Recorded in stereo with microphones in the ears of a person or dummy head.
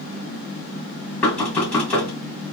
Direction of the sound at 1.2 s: 10° left (ahead or behind).